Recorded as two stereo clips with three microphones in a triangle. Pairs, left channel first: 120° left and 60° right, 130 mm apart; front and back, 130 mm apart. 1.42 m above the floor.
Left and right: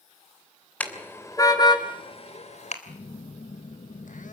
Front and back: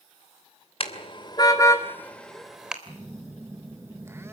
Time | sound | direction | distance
0.8 | a car horn | 40° left | 2.5 m
2.9 | a phone buzzing | 110° left | 1.4 m